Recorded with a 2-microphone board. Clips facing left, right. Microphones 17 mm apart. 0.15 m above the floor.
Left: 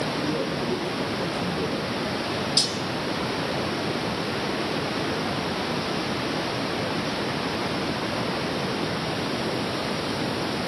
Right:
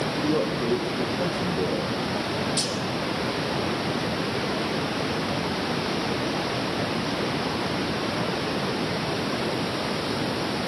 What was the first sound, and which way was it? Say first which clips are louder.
A man speaking: right 2 dB; 30° right (ahead or behind).